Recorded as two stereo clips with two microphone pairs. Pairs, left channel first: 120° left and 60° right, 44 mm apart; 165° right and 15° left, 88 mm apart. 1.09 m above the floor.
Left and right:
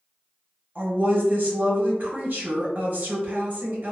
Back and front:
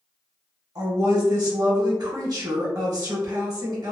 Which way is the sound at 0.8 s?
25° right.